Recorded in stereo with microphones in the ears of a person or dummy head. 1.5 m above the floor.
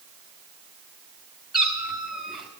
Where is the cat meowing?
Centre (ahead or behind), 2 m.